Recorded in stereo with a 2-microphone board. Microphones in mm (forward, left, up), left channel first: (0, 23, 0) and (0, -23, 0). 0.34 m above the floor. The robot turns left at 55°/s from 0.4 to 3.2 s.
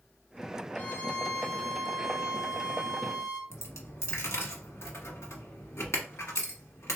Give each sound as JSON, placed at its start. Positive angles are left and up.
{"t": 0.8, "sound": "a violin", "azimuth_deg": 40, "distance_m": 1.2}
{"t": 3.5, "sound": "a dropped coin", "side_deg": 80, "distance_m": 1.3}